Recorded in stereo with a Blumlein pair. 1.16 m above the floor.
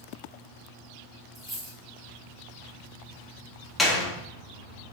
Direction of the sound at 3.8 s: Straight ahead.